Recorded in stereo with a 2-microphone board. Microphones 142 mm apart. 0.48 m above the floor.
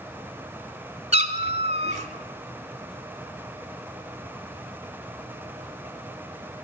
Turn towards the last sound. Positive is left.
turn(degrees=-50)  # may be behind; listen again after turning